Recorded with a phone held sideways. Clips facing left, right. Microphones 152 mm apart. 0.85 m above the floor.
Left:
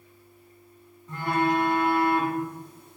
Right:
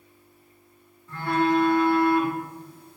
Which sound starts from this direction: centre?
A phone buzzing, at 1.1 s.